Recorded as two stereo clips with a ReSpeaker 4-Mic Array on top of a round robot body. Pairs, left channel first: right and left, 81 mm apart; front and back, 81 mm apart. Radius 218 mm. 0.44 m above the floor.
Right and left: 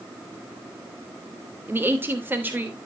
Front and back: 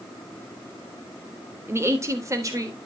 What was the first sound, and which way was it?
A woman speaking, 140° left.